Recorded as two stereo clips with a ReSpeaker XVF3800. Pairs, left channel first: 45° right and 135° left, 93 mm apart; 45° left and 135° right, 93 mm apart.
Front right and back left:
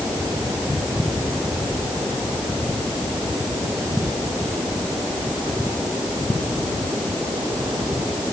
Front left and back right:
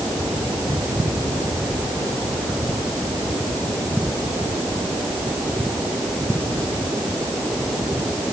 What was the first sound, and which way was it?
Only background noise.